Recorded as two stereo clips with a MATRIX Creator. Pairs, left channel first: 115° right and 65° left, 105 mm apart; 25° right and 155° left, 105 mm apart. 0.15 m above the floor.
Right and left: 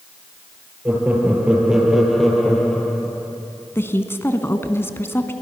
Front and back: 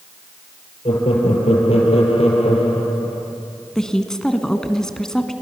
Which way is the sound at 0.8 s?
5° right.